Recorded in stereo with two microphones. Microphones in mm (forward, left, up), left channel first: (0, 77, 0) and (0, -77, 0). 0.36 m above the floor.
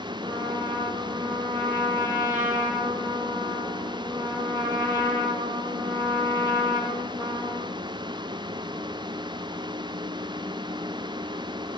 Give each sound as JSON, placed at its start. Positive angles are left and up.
{"t": 0.2, "sound": "a trumpet", "side_deg": 20, "distance_m": 7.5}